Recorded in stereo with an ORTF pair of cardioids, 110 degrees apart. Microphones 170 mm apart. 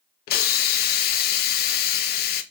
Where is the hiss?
65° left, 0.7 m.